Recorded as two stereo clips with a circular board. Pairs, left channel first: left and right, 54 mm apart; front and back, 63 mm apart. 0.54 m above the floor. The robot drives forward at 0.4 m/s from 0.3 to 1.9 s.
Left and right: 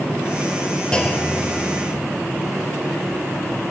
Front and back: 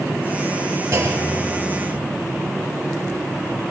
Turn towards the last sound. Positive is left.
turn(degrees=165)